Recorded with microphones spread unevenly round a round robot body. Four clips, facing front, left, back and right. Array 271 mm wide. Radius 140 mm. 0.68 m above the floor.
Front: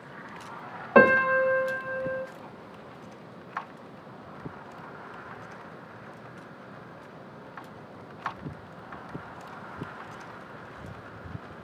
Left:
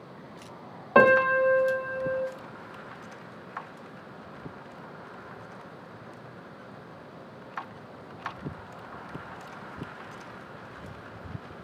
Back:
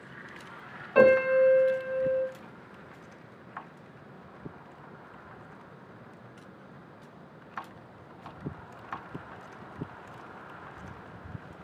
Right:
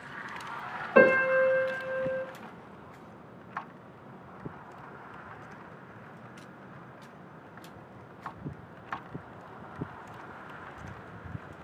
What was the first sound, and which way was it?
A piano, 30° left.